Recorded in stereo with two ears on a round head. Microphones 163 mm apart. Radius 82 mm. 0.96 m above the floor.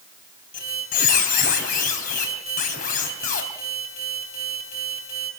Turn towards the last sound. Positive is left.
turn(degrees=45)  # may be behind; listen again after turning